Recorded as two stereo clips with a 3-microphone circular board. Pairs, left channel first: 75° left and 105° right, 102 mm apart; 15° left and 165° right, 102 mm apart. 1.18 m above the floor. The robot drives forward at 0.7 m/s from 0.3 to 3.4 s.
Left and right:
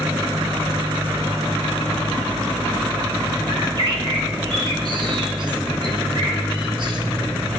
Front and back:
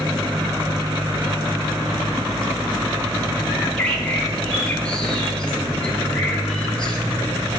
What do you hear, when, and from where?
3.5 s a bird: 65° right, 1.2 m